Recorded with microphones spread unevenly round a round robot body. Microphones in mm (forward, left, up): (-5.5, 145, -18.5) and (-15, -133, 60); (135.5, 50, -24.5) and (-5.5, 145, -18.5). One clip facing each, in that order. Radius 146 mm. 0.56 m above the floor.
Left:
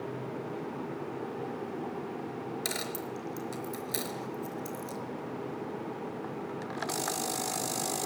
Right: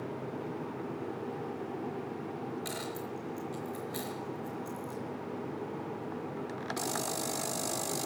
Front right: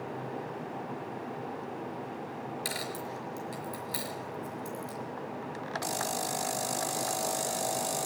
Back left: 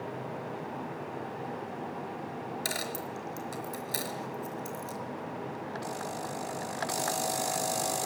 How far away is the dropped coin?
About 5 m.